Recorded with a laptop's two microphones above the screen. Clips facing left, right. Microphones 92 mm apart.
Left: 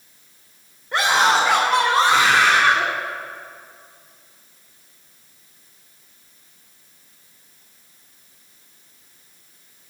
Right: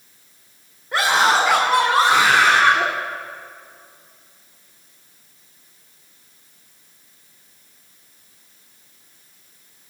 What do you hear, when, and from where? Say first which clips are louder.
0.9 s a scream: even; centre (ahead or behind), 3 m; by 2.9 s 20° right (ahead or behind), 2 m